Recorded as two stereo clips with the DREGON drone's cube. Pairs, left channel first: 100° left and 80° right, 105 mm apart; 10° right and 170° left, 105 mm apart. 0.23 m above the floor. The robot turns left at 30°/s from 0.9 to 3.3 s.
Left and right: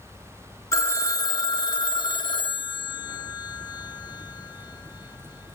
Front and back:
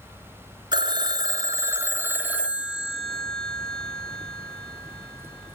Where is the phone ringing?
145° left, 1.0 m; by 5.6 s 75° left, 1.0 m.